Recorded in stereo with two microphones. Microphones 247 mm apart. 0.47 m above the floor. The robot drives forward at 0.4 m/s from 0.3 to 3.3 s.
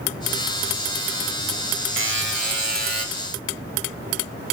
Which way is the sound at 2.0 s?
55° right (ahead or behind).